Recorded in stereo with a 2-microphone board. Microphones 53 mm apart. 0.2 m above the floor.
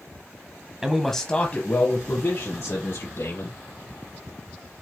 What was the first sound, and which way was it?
A man speaking, 10° right (ahead or behind).